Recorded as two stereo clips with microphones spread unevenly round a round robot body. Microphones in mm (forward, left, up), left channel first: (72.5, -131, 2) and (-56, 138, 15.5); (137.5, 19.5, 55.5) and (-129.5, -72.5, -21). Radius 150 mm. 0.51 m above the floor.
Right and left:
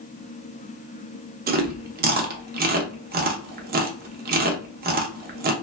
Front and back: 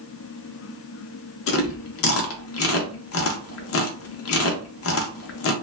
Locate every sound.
1.5 s chewing: 65° left, 0.5 m